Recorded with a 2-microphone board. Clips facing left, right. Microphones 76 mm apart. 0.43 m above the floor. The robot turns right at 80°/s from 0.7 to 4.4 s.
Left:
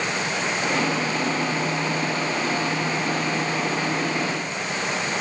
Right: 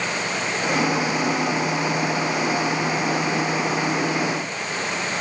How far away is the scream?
I don't hear a scream.